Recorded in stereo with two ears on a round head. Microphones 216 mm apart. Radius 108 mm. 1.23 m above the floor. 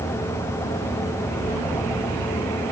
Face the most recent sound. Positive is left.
No sound to turn to.